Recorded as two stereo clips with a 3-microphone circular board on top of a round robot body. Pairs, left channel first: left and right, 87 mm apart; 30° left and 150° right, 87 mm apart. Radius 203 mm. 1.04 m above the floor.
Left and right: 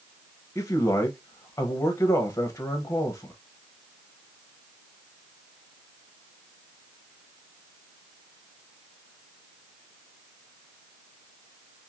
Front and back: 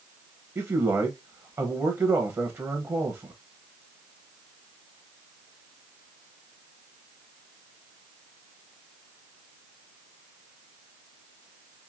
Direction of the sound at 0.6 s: 150° left.